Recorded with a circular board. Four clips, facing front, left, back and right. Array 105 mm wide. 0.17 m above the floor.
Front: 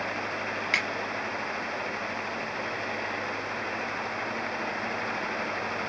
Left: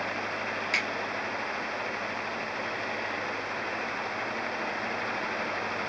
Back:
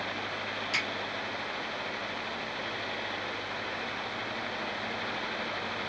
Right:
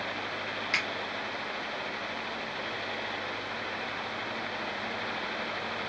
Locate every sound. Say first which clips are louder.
0.7 s a finger snap: even, front 5 dB; 5° right, 2.5 m